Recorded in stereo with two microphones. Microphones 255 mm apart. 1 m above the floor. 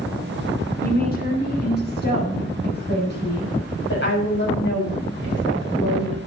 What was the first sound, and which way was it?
A woman speaking, 35° left (ahead or behind).